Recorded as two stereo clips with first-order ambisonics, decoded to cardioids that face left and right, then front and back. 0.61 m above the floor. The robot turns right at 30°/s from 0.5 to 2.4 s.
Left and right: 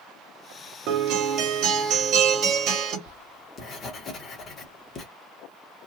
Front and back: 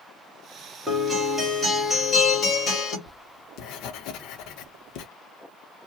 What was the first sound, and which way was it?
A guitar, 105° right.